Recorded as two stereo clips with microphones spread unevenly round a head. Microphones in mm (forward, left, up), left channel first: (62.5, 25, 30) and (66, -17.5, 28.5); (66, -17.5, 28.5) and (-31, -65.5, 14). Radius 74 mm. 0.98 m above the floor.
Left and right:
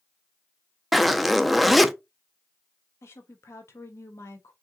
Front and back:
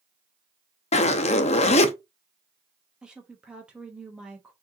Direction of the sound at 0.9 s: 5° left.